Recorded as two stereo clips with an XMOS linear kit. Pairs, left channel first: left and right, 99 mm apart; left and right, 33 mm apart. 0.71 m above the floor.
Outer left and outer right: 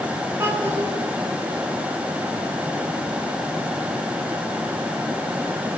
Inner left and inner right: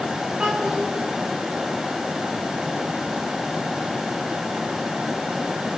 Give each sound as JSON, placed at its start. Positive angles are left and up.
{"t": 0.4, "sound": "a child speaking", "side_deg": -30, "distance_m": 5.0}